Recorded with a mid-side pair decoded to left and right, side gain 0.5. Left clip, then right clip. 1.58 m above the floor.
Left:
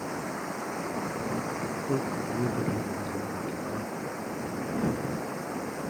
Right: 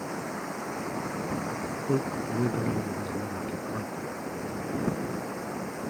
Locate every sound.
0.0 s running water: 5° left
1.8 s a man speaking: 20° right